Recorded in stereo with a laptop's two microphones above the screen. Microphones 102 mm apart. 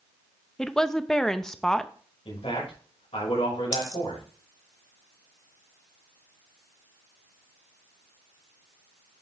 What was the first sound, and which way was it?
A woman speaking, 5° left (ahead or behind).